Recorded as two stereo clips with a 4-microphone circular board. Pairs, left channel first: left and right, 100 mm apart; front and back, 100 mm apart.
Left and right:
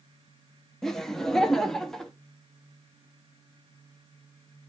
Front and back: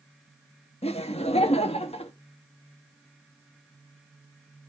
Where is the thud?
I don't hear a thud.